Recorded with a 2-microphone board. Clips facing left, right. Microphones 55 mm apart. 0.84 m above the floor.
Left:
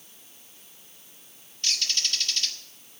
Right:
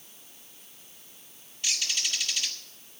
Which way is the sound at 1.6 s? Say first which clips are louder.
Left 1 dB; 10° right (ahead or behind).